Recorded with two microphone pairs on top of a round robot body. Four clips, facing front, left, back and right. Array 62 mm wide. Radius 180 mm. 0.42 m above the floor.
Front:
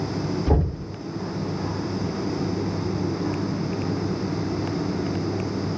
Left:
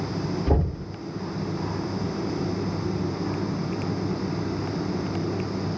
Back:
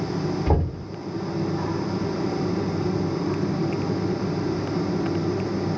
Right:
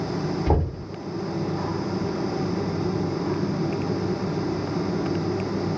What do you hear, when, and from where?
0.5 s knocking: 125° right, 3 m